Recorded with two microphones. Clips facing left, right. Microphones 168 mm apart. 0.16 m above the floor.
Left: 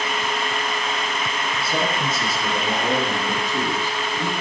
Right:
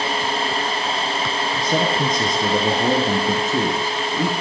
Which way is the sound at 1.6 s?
45° right (ahead or behind).